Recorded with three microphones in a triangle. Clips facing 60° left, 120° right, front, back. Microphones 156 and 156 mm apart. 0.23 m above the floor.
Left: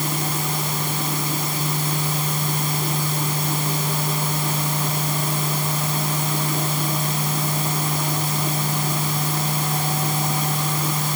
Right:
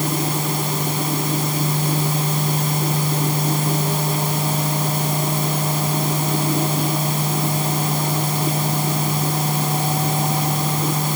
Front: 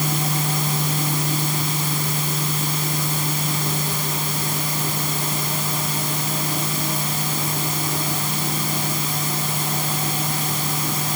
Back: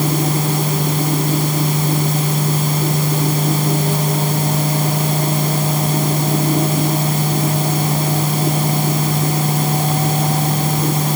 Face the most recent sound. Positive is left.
No sound to turn to.